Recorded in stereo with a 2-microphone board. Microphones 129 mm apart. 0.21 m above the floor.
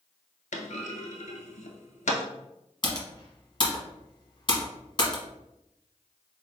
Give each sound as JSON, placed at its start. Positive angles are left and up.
{"t": 0.5, "sound": "a clunk", "side_deg": 80, "distance_m": 0.5}
{"t": 2.8, "sound": "typing on a keyboard", "side_deg": 40, "distance_m": 1.0}